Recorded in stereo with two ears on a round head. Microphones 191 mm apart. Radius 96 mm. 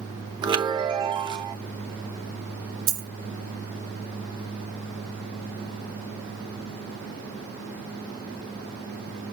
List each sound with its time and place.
0.4 s a chime: 20° right (ahead or behind), 0.8 m
2.9 s a dropped coin: 70° right (ahead or behind), 1.6 m